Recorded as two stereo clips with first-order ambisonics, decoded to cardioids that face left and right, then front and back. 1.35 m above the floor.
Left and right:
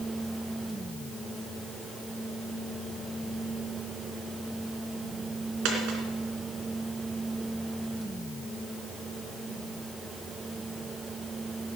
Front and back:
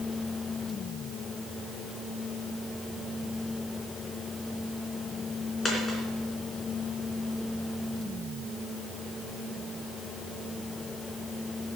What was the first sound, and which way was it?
A dropped coin, 75° right.